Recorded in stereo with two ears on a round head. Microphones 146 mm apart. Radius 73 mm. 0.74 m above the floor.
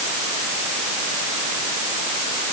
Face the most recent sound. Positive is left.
No sound to turn to.